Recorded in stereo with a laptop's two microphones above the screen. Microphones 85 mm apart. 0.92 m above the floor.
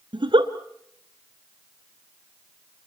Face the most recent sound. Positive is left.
turn(degrees=-70)  # may be behind; listen again after turning